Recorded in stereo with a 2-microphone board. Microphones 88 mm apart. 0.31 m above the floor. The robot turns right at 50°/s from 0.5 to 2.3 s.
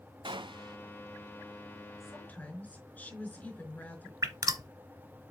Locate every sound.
0.2 s a gunshot: 65° right (ahead or behind), 0.6 m; by 0.8 s 55° right (ahead or behind), 0.6 m
2.0 s a woman speaking: 30° left (ahead or behind), 4.5 m; by 4.1 s 15° left (ahead or behind), 4.5 m
4.2 s dripping: 40° right (ahead or behind), 0.8 m